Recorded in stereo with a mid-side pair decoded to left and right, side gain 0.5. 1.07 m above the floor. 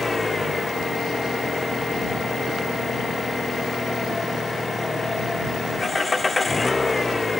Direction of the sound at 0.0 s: 15° left.